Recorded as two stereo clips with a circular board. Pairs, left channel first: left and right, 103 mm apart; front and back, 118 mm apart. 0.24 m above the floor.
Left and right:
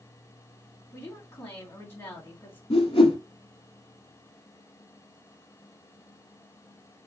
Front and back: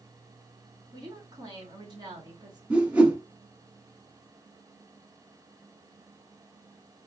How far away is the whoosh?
About 1.3 m.